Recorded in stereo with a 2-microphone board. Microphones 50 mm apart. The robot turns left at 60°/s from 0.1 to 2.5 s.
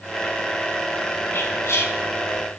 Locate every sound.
1.3 s whispering: 120° left, 3 m; by 1.9 s 85° left, 3 m